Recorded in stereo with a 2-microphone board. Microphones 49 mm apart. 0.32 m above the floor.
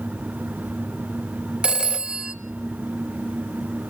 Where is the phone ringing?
20° right (ahead or behind), 0.6 m.